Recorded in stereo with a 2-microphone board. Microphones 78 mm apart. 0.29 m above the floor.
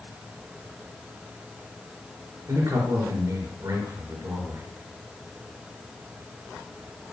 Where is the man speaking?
50° right (ahead or behind), 4.5 m.